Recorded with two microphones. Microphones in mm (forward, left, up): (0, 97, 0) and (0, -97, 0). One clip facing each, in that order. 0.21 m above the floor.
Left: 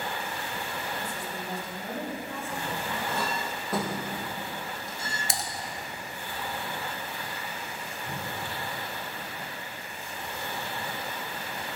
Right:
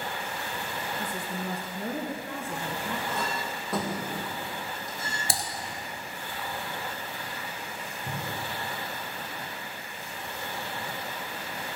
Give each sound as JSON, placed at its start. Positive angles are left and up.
{"t": 1.0, "sound": "a woman speaking", "side_deg": -60, "distance_m": 1.9}
{"t": 3.1, "sound": "a clink", "side_deg": 0, "distance_m": 4.0}
{"t": 5.3, "sound": "typing on a keyboard", "side_deg": -35, "distance_m": 1.1}
{"t": 8.1, "sound": "a cupboard door", "side_deg": -50, "distance_m": 3.5}